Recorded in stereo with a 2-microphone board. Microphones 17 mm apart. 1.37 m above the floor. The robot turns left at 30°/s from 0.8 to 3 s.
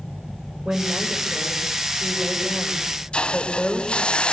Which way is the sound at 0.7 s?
120° right.